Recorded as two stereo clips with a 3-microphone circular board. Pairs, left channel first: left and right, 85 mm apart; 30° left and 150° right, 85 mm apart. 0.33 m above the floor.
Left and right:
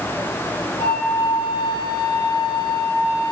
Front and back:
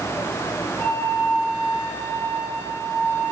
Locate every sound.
0.8 s a flute: 95° left, 2.5 m